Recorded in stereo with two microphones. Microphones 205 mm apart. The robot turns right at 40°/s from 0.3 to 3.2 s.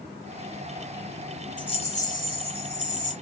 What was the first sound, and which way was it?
A rattle, 25° left.